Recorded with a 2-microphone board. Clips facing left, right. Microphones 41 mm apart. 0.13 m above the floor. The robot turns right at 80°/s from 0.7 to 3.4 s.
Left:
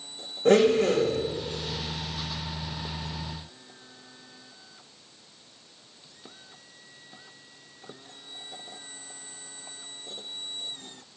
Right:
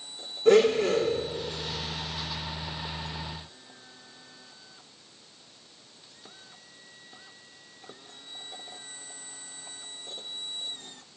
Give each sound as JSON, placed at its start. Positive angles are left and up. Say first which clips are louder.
{"t": 0.5, "sound": "a blender", "louder": "even", "azimuth_deg": 60, "distance_m": 4.0}